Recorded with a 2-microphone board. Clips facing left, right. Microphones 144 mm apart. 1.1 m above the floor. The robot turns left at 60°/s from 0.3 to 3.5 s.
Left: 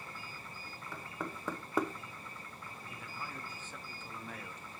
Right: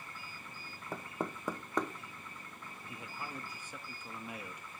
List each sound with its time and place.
0.9 s knocking: 45° right (ahead or behind), 0.6 m; by 1.9 s 15° left (ahead or behind), 0.6 m
2.9 s a man speaking: 20° right (ahead or behind), 0.7 m; by 4.8 s 10° right (ahead or behind), 0.7 m